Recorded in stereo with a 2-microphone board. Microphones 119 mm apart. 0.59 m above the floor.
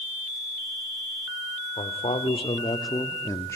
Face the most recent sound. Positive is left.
turn(degrees=20)  # may be behind; listen again after turning